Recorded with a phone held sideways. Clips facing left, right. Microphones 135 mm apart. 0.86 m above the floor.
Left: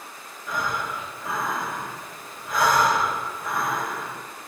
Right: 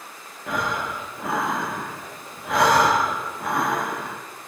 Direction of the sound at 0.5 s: 70° right (ahead or behind).